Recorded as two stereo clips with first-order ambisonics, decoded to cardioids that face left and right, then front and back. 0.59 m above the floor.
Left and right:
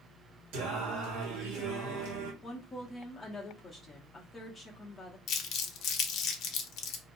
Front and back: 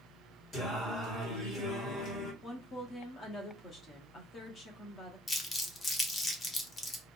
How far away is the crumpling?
About 0.7 m.